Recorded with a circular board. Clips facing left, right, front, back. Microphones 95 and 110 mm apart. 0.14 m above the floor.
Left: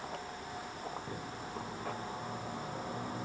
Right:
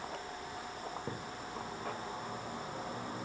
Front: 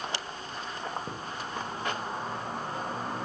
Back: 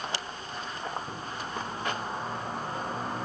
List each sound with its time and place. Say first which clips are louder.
1.1 s a thud: right 1 dB, front 1 dB; 35° right, 4.5 m